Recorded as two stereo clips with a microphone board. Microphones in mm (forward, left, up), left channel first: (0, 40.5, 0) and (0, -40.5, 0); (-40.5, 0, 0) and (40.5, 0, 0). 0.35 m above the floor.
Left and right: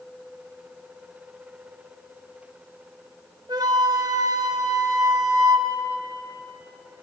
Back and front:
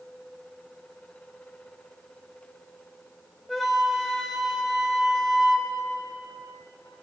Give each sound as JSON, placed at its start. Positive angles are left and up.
{"t": 3.5, "sound": "a flute", "azimuth_deg": -90, "distance_m": 0.8}